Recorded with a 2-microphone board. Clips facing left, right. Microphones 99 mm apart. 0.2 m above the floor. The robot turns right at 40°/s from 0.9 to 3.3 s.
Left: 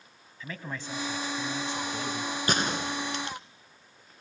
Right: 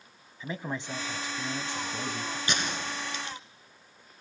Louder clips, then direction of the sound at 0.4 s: Right 3 dB; 20° right (ahead or behind).